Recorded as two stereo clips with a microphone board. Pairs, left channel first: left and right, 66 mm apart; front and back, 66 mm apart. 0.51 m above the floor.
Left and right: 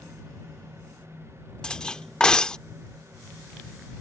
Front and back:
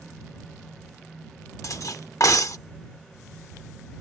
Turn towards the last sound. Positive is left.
turn(degrees=15)